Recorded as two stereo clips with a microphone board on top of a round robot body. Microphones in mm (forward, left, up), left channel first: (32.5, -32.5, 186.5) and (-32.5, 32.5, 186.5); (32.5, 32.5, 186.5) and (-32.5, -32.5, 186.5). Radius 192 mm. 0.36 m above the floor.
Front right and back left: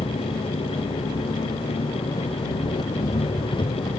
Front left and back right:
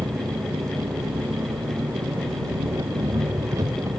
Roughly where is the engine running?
Right.